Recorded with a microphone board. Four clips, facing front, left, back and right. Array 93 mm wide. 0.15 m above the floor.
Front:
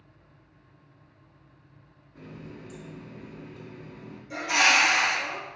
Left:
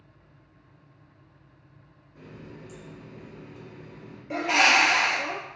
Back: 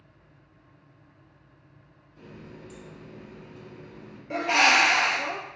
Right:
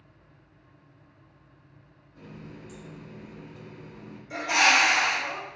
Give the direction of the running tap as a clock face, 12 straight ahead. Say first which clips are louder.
Even, front 2 dB; 11 o'clock.